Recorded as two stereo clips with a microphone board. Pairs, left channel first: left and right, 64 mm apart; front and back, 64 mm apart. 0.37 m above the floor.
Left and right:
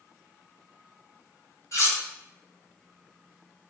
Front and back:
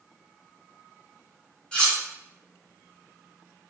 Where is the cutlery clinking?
75° left, 1.2 m.